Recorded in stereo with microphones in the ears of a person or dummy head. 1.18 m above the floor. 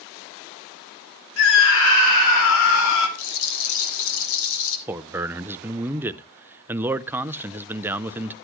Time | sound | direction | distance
1.4 | a scream | 75° left (ahead or behind) | 3 m
3.2 | a rattle | 70° left (ahead or behind) | 2.0 m
4.9 | a man speaking | 10° right (ahead or behind) | 0.5 m